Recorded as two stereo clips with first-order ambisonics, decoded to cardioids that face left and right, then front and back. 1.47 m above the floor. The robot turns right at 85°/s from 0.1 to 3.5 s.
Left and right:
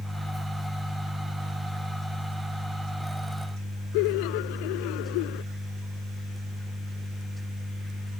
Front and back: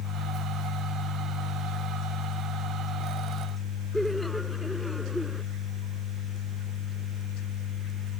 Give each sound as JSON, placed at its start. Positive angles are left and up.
{"t": 3.9, "sound": "laughter", "azimuth_deg": 85}